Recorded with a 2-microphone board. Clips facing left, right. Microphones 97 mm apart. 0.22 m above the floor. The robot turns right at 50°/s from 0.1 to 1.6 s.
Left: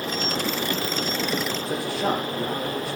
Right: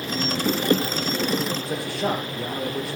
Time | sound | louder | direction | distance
1.7 | a man speaking | left 4 dB | centre (ahead or behind) | 6 m